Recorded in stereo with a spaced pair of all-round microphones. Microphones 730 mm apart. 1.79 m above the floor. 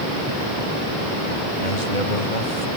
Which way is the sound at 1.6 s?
80° left.